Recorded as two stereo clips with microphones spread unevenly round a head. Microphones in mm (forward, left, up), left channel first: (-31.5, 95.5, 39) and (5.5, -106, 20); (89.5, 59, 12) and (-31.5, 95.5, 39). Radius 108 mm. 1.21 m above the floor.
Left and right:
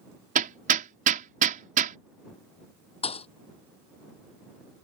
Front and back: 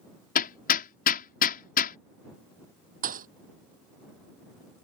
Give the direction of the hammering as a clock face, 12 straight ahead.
1 o'clock.